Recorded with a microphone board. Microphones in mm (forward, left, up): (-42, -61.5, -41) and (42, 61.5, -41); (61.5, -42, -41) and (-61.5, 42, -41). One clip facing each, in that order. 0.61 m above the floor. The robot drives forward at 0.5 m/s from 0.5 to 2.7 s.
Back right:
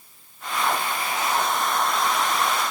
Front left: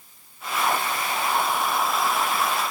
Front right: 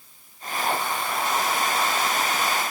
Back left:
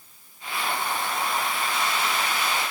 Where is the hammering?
No hammering in this recording.